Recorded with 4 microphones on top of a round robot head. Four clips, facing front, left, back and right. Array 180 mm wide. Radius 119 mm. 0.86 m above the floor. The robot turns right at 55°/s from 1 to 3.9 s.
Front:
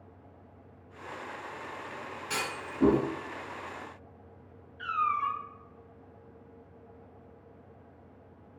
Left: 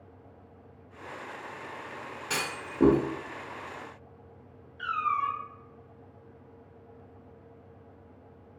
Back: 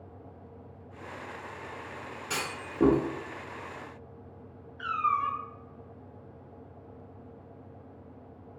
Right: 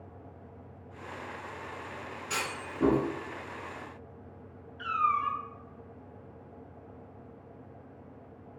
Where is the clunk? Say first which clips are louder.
Left 1 dB, even; 100° left, 1.6 m; by 3.0 s 140° left, 1.6 m.